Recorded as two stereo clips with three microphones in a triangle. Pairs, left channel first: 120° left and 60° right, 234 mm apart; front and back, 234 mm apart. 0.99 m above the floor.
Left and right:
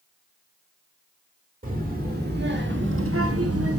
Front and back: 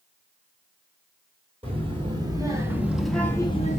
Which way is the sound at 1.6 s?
115° right.